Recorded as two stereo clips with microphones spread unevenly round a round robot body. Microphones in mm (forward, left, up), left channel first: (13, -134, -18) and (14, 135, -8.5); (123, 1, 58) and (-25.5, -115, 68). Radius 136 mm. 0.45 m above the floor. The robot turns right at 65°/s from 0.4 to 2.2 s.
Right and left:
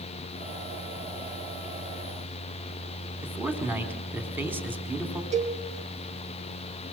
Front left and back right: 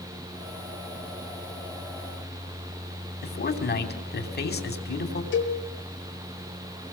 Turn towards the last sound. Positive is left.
turn(degrees=25)